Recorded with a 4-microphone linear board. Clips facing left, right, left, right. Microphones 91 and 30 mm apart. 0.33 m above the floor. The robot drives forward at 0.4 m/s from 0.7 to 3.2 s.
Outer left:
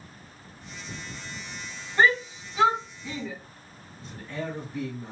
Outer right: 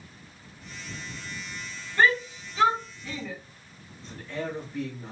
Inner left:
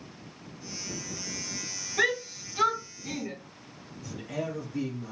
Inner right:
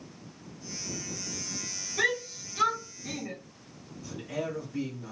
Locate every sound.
2.0 s a shout: 15° left (ahead or behind), 1.8 m
4.0 s a man speaking: 10° left (ahead or behind), 2 m